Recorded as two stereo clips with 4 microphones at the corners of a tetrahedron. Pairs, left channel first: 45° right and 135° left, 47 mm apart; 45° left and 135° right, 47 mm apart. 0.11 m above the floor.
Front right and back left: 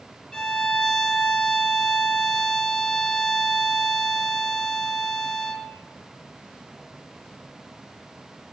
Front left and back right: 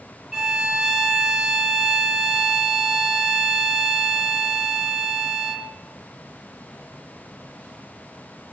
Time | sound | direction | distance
0.3 | a violin | 95° right | 0.9 m